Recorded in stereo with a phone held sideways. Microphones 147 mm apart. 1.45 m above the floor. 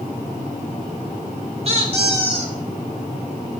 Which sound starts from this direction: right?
A squeak, at 1.6 s.